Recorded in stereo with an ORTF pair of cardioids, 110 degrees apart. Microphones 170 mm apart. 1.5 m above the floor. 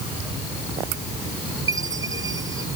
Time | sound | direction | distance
1.7 | a chime | 20° right | ?